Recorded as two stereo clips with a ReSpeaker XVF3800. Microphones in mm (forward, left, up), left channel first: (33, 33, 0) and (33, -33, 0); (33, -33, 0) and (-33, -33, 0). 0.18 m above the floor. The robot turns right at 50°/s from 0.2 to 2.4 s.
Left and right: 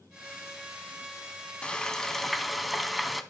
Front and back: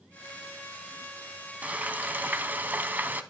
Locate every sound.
1.6 s frying: 145° left, 0.5 m; by 3.2 s 175° right, 0.5 m